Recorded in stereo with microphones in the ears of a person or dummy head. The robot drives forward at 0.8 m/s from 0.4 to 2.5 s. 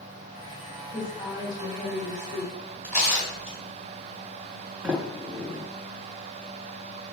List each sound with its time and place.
0.9 s a woman speaking: 30° left (ahead or behind), 1.7 m; by 2.6 s 20° left (ahead or behind), 3 m
2.8 s tearing paper: centre (ahead or behind), 3.5 m
4.8 s a sliding door: 5° right (ahead or behind), 1.2 m